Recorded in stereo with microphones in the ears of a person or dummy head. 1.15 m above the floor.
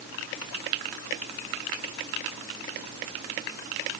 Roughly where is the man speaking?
I don't hear a man speaking.